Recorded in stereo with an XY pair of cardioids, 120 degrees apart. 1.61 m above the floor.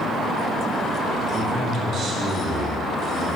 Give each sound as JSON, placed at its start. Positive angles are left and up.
{"t": 1.3, "sound": "a man speaking", "azimuth_deg": -50, "distance_m": 2.5}